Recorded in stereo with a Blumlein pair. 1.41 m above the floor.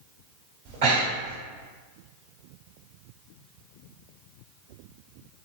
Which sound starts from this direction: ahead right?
Breathing, at 0.7 s.